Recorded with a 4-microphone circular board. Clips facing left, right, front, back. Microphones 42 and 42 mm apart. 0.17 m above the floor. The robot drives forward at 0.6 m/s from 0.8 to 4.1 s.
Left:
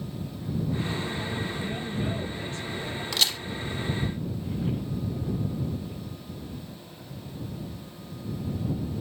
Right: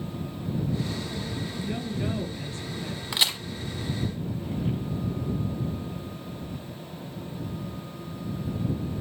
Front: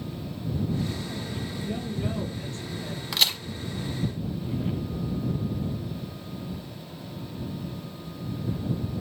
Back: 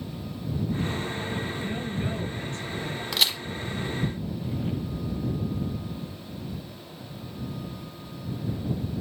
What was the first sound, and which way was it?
A woman speaking, 170° right.